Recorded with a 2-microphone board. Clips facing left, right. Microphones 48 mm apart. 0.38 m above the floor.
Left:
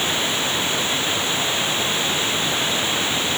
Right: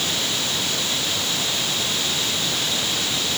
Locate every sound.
0.0 s running water: 20° left (ahead or behind)